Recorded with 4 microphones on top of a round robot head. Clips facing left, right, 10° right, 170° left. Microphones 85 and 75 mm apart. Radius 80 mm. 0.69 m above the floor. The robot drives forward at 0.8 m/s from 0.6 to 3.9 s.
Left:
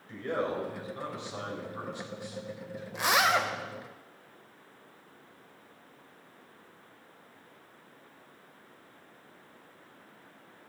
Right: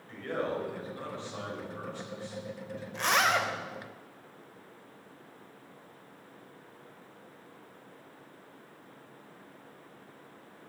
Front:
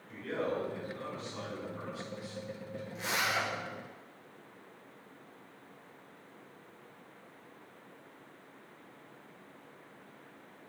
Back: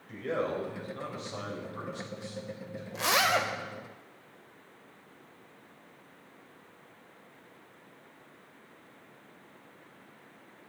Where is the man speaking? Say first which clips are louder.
Left 1 dB, back 3 dB; 155° left, 4 m; by 2.8 s 165° left, 5.5 m.